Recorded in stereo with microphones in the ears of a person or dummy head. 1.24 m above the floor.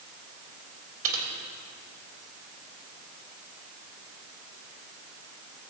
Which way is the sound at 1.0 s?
75° right (ahead or behind).